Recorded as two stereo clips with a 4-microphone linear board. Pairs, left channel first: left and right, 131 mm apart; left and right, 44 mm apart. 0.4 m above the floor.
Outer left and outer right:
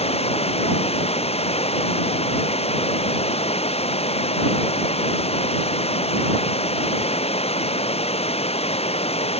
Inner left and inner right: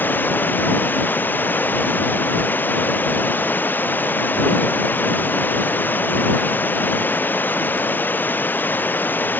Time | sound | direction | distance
0.0 | running water | 50° left (ahead or behind) | ?